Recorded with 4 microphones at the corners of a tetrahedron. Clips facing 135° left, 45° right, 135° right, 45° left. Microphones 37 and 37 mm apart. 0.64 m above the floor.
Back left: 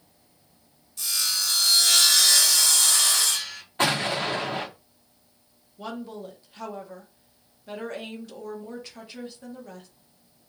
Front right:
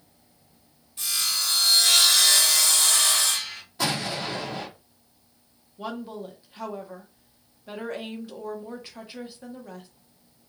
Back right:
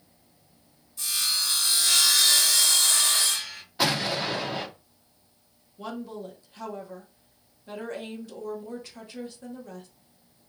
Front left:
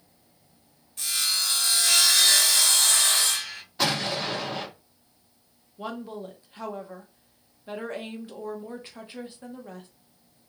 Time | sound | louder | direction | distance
1.0 | sawing | even, front left 1 dB | 15° left | 2.5 m
3.8 | an explosion | back left 4 dB, back right 1 dB | 145° left | 1.1 m
5.8 | a woman speaking | front right 1 dB, front left 1 dB | 20° left | 1.2 m